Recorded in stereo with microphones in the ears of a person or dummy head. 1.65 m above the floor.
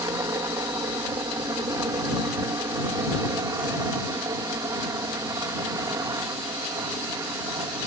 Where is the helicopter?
15° right (ahead or behind).